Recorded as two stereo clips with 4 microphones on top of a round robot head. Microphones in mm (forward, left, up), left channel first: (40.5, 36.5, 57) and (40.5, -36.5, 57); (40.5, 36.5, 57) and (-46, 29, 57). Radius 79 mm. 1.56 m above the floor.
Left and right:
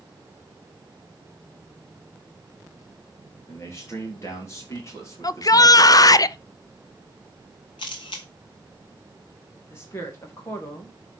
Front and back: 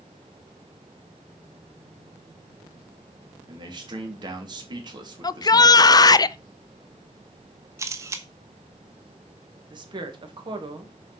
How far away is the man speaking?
About 3 m.